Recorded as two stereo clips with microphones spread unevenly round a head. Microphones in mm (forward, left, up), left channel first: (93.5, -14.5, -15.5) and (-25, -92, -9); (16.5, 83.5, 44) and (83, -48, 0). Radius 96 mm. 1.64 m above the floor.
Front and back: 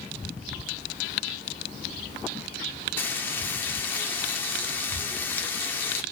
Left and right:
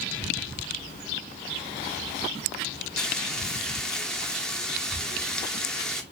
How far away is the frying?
About 0.6 m.